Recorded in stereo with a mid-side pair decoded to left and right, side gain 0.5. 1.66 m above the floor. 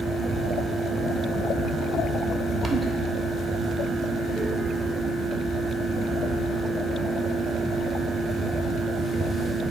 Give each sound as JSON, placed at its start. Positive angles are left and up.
{"t": 0.0, "sound": "a fan", "azimuth_deg": -30, "distance_m": 1.0}